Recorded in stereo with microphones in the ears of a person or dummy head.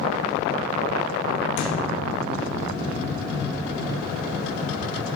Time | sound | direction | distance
1.6 | a thud | 35° left (ahead or behind) | 2.0 m